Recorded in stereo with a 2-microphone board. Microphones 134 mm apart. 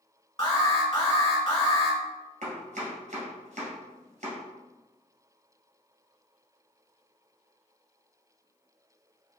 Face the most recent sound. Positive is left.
turn(degrees=-80)